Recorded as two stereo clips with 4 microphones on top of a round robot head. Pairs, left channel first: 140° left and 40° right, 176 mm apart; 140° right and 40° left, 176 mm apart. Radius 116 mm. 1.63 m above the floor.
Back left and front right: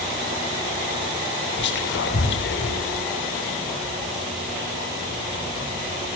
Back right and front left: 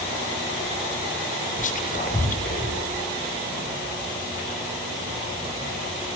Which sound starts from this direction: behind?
Whispering, at 1.6 s.